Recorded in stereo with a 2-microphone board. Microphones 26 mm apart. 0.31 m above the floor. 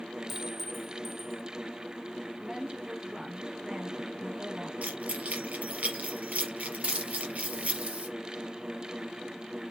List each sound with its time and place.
0.3 s a clink: centre (ahead or behind), 1.5 m
2.4 s a woman speaking: 25° right (ahead or behind), 4.5 m
4.8 s keys jangling: 65° right (ahead or behind), 4 m
6.8 s a hiss: 50° right (ahead or behind), 4.5 m